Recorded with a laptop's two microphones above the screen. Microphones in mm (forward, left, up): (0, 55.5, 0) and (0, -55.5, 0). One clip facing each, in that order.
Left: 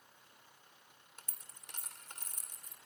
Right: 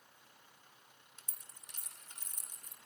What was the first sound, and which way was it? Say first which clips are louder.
A dropped coin: left 4 dB; 75° left (ahead or behind).